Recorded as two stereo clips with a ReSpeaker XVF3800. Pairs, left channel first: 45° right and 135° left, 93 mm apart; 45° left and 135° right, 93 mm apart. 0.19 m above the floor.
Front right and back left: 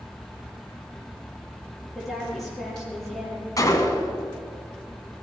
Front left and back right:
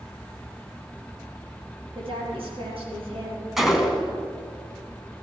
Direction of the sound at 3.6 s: 50° right.